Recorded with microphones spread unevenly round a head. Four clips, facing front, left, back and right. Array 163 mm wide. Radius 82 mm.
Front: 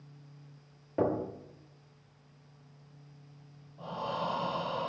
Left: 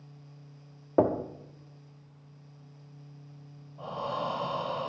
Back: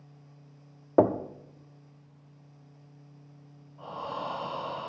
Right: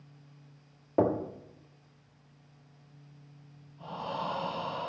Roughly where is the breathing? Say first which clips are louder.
Left 3 dB, front 1 dB; left.